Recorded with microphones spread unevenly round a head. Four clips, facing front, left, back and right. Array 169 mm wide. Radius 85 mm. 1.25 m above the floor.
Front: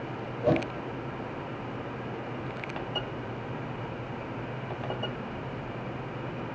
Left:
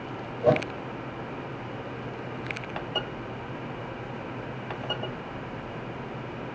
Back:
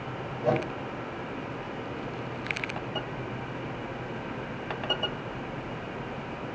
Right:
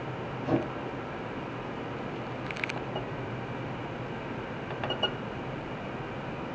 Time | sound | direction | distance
0.4 | a whoosh | 95° left | 6.5 m